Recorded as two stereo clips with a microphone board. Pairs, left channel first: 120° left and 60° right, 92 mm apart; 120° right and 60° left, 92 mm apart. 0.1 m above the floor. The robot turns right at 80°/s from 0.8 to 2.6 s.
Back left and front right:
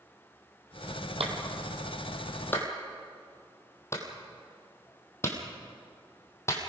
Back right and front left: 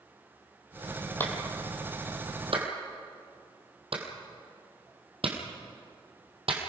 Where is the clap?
50° right, 3 m; by 6.6 s 60° left, 3 m.